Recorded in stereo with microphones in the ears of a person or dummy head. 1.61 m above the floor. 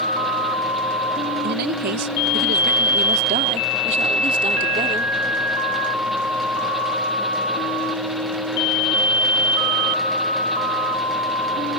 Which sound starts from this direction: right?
A man speaking, at 1.4 s.